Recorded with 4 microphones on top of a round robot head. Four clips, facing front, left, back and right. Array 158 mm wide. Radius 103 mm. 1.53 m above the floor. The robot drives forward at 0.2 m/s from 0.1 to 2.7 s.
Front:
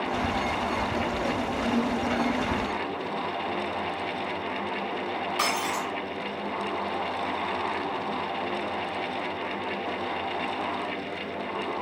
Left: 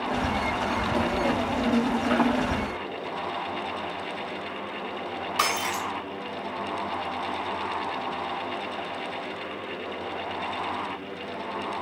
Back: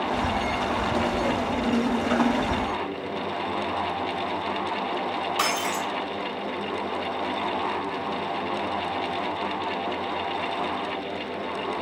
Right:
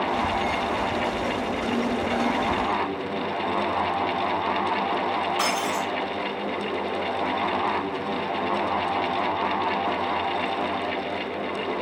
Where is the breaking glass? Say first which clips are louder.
Right 2 dB, even; 130° left, 3 m.